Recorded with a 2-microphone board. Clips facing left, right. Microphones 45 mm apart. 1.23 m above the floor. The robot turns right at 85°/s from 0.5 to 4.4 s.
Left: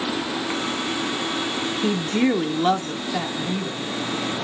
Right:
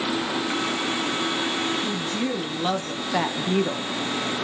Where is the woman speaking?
100° left, 0.7 m; by 3.9 s 85° right, 0.7 m.